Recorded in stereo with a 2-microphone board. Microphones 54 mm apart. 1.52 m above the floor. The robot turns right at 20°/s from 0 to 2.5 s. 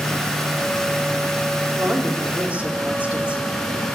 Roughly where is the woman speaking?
Right.